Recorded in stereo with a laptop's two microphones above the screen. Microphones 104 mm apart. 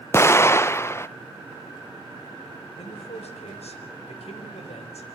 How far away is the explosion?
About 0.6 m.